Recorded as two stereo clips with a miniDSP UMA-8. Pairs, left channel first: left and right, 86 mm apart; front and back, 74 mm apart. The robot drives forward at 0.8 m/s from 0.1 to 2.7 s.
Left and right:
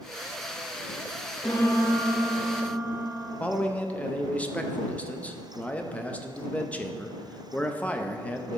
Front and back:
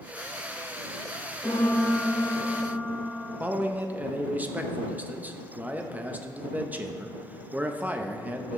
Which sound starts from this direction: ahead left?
A piano, at 1.4 s.